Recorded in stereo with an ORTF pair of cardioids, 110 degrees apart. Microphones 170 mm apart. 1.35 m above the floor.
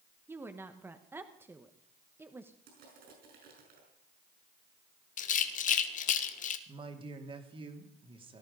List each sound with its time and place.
0.3 s a woman speaking: 15° right, 1.0 m
2.7 s crushing: 65° right, 6 m
5.2 s a rattle: 50° left, 1.2 m
6.7 s a man speaking: 30° right, 2.5 m